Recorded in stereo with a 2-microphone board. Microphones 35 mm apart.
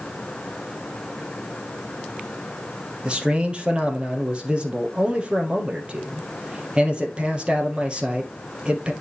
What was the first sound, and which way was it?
A man speaking, 30° right (ahead or behind).